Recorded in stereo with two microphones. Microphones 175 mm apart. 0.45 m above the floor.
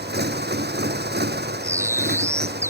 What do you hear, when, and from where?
0.0 s a motorcycle: 75° right (ahead or behind)
1.6 s a bird: 15° right (ahead or behind)